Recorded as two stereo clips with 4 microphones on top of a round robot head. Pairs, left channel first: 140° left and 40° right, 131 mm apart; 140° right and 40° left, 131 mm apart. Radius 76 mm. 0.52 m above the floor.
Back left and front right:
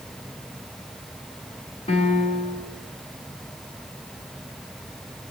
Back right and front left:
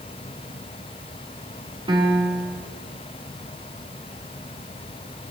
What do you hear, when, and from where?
1.9 s a piano: 95° left, 4 m